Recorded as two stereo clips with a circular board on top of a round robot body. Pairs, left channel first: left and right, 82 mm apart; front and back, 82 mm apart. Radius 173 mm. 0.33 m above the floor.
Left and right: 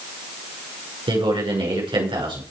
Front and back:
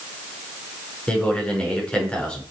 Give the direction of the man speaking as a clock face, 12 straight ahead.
3 o'clock.